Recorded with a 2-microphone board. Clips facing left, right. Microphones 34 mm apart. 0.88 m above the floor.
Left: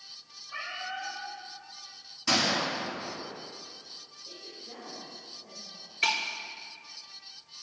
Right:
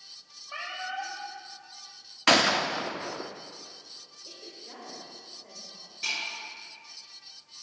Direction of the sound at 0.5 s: 40° right (ahead or behind).